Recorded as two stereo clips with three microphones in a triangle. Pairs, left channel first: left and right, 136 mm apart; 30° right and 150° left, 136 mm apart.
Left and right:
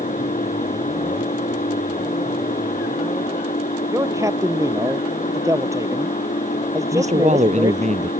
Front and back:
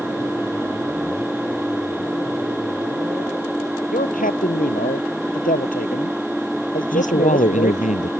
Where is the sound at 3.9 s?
20° right.